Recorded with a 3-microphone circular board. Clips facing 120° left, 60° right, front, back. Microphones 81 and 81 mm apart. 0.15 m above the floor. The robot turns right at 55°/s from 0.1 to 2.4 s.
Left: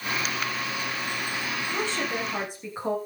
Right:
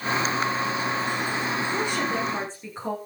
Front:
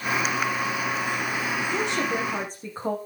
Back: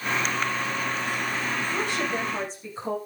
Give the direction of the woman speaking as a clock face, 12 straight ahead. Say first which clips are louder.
Right 3 dB, front 3 dB; 12 o'clock.